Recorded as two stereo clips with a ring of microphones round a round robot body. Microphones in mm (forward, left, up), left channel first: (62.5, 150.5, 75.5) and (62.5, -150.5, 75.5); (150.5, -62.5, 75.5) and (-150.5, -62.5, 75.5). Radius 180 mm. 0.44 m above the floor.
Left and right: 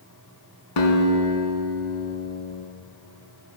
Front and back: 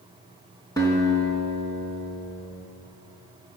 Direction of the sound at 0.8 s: 80° left.